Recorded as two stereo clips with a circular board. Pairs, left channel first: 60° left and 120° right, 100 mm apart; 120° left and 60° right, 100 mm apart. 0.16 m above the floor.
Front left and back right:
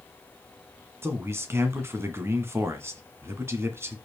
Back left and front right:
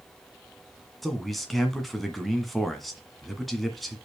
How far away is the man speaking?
About 1.7 m.